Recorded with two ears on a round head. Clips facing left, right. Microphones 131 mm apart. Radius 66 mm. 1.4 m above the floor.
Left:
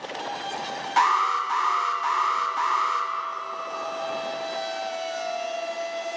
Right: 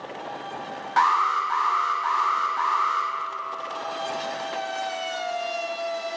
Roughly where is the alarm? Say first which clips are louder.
Right 1 dB; left.